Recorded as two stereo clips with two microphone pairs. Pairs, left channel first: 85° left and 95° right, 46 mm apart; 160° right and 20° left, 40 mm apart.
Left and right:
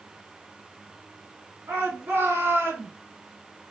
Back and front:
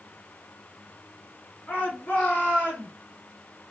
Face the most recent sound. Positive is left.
turn(degrees=-120)